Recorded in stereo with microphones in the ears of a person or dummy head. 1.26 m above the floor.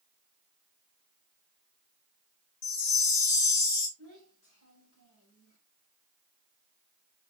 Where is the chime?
50° left (ahead or behind), 1.6 m.